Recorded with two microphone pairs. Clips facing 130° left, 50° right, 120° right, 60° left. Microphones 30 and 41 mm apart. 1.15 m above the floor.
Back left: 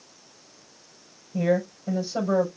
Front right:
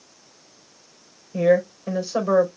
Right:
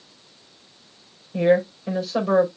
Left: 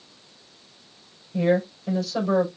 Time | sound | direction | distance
1.3 | a woman speaking | 50° right | 4.5 m